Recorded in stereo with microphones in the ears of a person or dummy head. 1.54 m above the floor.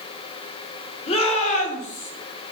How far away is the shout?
About 4 m.